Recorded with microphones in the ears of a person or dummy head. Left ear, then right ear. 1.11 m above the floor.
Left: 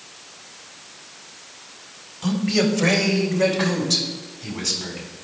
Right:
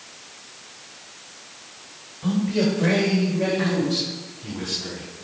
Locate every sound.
2.2 s a man speaking: 75° left (ahead or behind), 2 m; by 5.1 s 55° left (ahead or behind), 3.5 m